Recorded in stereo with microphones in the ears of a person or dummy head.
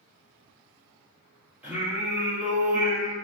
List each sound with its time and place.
1.6 s singing: 15° right (ahead or behind), 1.4 m